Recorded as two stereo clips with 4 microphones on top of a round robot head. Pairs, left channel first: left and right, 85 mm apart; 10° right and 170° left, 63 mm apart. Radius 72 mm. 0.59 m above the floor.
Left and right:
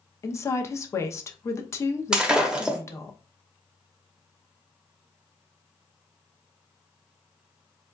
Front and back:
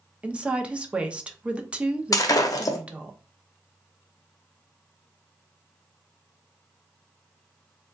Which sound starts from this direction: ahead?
Breaking glass, at 2.1 s.